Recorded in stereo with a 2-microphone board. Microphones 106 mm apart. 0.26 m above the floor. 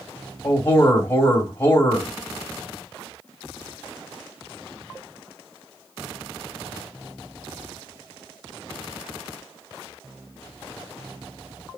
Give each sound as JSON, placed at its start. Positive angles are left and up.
{"t": 0.4, "sound": "a man speaking", "side_deg": 20, "distance_m": 1.0}